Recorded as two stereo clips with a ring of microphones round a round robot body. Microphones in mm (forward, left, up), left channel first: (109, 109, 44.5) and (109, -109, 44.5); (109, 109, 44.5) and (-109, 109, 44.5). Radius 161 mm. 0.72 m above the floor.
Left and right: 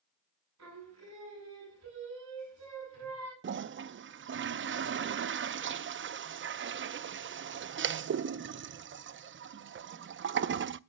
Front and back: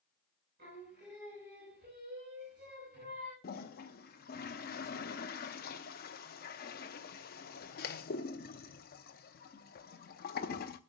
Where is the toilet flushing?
55° right, 0.5 m.